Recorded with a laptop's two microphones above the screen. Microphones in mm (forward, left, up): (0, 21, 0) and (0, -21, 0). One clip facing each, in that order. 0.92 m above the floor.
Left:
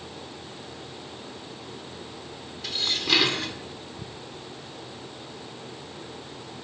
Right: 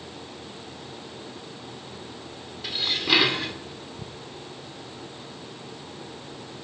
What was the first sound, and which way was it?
Dishes clattering, 10° right (ahead or behind).